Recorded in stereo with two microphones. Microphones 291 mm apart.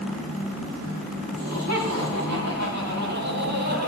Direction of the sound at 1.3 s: 60° right (ahead or behind).